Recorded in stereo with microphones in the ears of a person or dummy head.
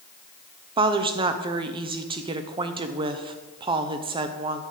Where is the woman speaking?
30° right (ahead or behind), 0.7 m.